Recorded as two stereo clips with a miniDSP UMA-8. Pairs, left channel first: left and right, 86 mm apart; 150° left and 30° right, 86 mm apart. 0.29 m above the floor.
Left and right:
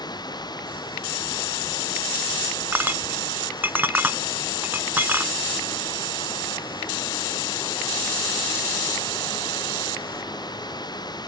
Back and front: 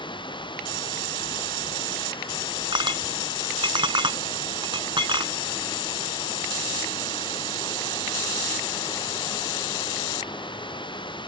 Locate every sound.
0.0 s running water: 130° left
2.7 s a clink: 20° right